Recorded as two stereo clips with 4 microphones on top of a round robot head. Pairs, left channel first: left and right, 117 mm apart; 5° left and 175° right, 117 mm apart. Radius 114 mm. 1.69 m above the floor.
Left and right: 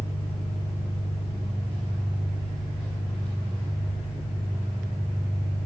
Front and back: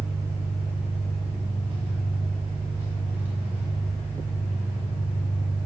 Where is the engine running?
145° left, 3.5 m.